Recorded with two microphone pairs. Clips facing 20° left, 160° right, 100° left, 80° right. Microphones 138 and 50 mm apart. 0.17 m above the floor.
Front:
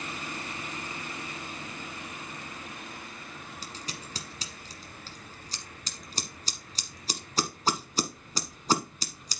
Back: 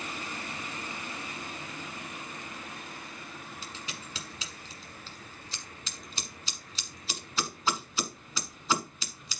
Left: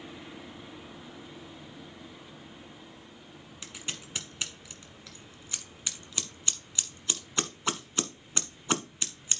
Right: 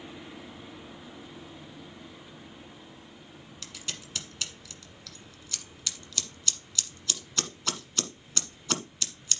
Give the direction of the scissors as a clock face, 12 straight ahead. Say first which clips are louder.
Front 1 dB, left 1 dB; 11 o'clock.